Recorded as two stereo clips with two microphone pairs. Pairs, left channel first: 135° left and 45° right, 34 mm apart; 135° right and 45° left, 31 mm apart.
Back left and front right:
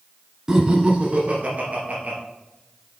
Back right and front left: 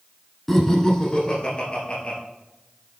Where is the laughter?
75° right, 1.1 m; by 2.2 s 85° right, 2.5 m.